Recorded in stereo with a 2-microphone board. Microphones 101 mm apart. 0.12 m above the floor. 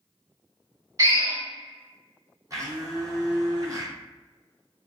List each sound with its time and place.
1.0 s a drill: 35° right (ahead or behind), 1.7 m
2.5 s a blender: 35° right (ahead or behind), 0.8 m